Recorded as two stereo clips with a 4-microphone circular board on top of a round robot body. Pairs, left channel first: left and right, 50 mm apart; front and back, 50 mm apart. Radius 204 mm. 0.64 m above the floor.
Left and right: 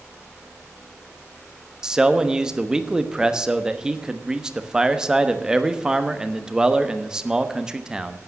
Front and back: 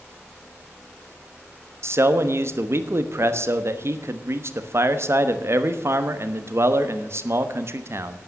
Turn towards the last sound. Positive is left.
turn(degrees=-165)